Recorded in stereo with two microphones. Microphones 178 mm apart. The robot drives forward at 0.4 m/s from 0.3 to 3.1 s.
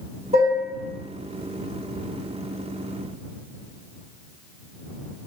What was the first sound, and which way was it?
Dishes clattering, 40° right (ahead or behind).